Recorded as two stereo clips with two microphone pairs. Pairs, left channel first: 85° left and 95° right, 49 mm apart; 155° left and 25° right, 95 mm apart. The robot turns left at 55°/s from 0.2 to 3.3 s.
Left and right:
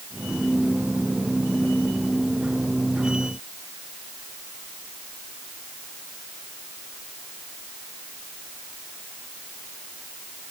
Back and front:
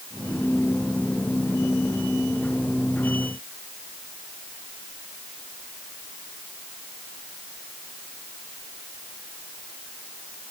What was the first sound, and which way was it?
Only background noise.